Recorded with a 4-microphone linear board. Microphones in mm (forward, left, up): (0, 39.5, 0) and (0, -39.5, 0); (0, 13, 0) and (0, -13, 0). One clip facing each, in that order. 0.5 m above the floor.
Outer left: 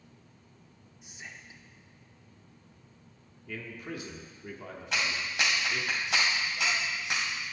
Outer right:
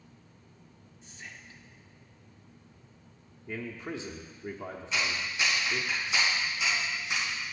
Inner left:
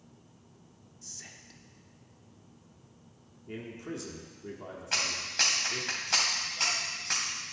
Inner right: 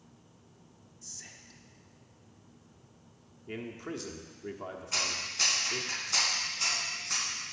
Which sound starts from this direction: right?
A man speaking, at 3.5 s.